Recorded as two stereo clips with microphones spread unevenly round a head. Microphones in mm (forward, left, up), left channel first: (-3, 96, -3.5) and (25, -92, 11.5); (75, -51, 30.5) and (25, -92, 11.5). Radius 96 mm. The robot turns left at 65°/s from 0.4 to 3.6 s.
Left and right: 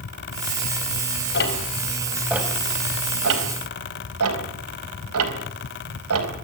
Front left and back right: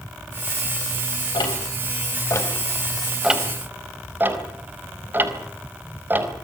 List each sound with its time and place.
1.3 s ticking: 65° left, 4.5 m; by 6.3 s 80° right, 4.5 m